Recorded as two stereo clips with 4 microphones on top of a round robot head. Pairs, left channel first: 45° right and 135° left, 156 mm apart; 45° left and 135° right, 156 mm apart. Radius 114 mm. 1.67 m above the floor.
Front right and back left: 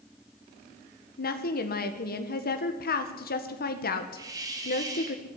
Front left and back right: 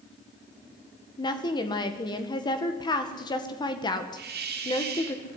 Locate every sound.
1.2 s a woman speaking: 20° right, 1.8 m
4.2 s a hiss: 155° right, 3 m